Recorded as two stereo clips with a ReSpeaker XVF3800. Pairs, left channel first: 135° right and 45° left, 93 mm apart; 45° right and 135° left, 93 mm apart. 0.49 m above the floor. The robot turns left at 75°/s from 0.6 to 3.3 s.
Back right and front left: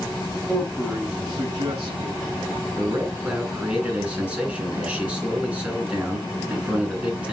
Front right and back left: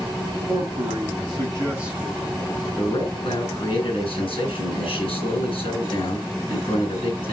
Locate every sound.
0.5 s a man speaking: 150° left, 6 m; by 2.2 s 35° left, 6 m
2.8 s a man speaking: 10° left, 7 m; by 7.3 s 35° right, 7 m